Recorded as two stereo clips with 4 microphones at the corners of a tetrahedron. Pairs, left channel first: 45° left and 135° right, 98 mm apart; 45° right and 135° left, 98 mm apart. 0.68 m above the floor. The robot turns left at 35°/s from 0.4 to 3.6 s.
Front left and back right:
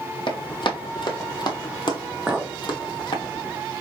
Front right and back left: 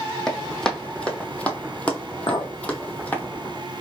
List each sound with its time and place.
0.3 s running footsteps: 40° left, 1.4 m; by 3.3 s 25° left, 1.2 m
2.3 s a clink: 55° right, 0.7 m; by 2.5 s 65° right, 0.7 m